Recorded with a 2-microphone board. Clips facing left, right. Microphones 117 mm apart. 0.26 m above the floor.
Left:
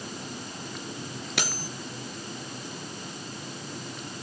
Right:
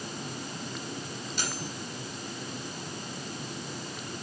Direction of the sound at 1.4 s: 70° left (ahead or behind).